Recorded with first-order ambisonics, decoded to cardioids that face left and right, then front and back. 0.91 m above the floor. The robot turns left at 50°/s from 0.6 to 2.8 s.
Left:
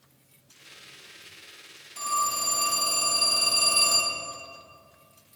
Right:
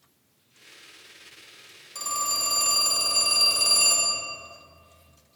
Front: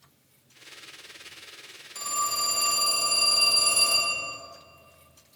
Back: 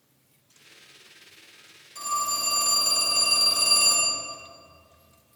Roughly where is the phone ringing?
Right.